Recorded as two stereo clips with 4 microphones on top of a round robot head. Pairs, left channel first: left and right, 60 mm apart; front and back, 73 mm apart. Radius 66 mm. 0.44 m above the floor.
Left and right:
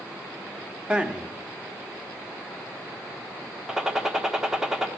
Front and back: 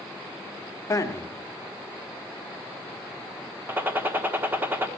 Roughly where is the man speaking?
Ahead.